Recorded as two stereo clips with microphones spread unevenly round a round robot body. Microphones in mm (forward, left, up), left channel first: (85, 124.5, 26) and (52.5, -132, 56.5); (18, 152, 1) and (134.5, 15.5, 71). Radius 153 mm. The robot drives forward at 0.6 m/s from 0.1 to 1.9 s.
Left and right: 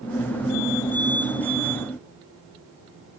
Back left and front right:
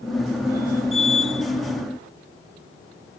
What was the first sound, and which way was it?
Only background noise.